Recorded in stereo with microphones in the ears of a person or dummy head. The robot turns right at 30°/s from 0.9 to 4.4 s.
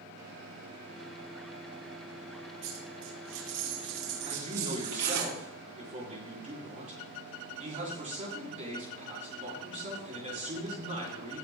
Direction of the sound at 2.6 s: 115° right.